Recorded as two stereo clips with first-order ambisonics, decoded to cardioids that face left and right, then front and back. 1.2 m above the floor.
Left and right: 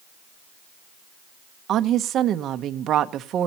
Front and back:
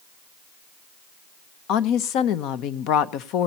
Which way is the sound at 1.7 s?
35° right.